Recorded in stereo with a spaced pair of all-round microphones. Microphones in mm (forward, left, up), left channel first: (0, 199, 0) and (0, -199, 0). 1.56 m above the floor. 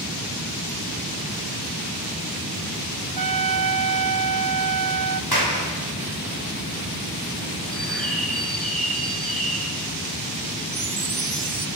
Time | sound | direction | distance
3.2 | a trumpet | 60° right (ahead or behind) | 0.6 m
5.3 | a clap | 70° left (ahead or behind) | 5.5 m
7.7 | a bird | centre (ahead or behind) | 4.5 m
10.7 | a chime | 80° right | 0.9 m